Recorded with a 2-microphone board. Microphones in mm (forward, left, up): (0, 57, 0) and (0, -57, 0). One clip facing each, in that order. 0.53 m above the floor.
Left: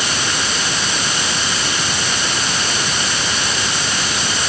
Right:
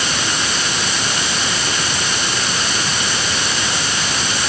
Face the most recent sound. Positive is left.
No sound to turn to.